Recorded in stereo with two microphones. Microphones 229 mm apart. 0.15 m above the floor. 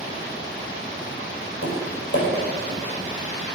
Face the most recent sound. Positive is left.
turn(degrees=45)  # may be behind; listen again after turning